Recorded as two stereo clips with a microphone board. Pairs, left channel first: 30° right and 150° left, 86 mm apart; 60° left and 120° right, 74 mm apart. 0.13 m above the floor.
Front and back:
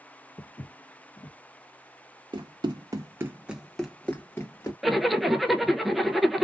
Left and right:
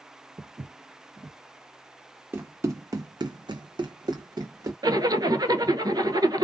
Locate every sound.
0.4 s footsteps: 65° right, 0.5 m
2.3 s running footsteps: straight behind, 0.8 m; by 4.7 s 85° right, 0.9 m
4.8 s a zipper: 120° right, 0.5 m